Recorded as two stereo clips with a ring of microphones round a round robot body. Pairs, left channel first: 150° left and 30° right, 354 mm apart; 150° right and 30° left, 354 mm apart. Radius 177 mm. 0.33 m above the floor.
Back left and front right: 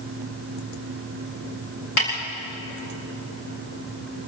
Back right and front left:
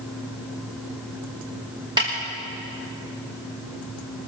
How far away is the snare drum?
About 8.5 m.